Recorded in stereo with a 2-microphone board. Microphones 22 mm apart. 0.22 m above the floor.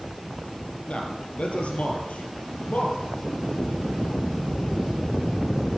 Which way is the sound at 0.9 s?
75° left (ahead or behind).